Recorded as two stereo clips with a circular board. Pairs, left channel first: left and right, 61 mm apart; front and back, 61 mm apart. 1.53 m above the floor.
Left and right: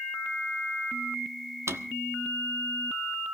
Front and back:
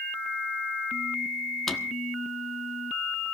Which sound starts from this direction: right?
A drawer, at 1.7 s.